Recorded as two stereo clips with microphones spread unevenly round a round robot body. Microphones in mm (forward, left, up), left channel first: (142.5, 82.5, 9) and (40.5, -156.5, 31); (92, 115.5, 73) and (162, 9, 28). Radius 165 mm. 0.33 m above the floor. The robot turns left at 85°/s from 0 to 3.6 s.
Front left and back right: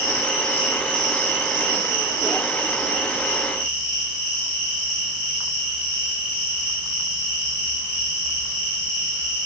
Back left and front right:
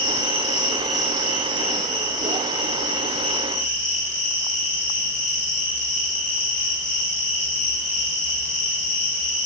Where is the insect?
50° left, 8 m; by 9.5 s 105° left, 8 m.